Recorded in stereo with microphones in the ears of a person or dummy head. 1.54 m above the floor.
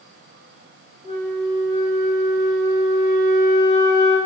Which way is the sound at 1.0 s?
25° right (ahead or behind).